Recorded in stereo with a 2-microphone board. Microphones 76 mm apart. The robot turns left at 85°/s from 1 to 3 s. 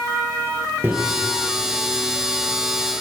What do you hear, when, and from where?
0.8 s a microwave: 30° right (ahead or behind), 1.6 m